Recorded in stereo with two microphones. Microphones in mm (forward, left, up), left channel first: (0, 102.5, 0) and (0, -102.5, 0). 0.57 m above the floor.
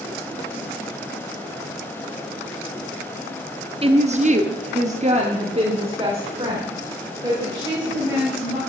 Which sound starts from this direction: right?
A woman speaking, at 3.8 s.